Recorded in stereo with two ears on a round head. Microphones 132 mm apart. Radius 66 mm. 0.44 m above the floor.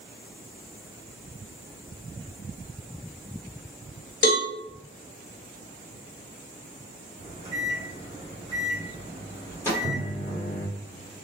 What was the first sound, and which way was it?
A cowbell, 60° left (ahead or behind).